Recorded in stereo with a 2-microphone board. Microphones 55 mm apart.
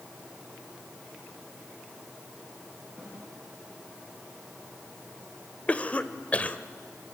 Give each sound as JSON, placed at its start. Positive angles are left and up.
{"t": 3.0, "sound": "a snare drum", "side_deg": 15, "distance_m": 10.0}
{"t": 5.7, "sound": "a cough", "side_deg": 25, "distance_m": 1.1}